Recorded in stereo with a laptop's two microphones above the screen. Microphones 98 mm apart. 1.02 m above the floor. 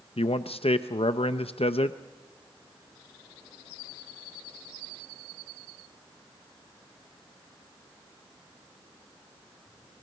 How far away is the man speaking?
About 0.5 m.